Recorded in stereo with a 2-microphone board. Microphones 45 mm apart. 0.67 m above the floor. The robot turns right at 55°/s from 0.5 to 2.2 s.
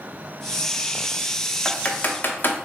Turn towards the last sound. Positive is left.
turn(degrees=45)  # may be behind; listen again after turning